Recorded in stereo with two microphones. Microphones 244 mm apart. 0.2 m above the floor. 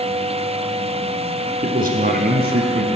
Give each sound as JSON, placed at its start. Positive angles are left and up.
{"t": 1.6, "sound": "a man speaking", "side_deg": -35, "distance_m": 1.8}